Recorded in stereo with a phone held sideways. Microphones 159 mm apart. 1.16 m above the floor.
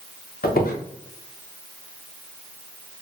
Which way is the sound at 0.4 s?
70° left (ahead or behind).